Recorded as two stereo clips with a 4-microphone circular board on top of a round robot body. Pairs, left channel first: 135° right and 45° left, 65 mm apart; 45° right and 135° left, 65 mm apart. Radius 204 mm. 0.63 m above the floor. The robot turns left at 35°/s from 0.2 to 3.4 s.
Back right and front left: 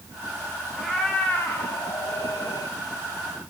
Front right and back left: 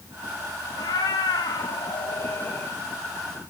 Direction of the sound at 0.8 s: 45° right.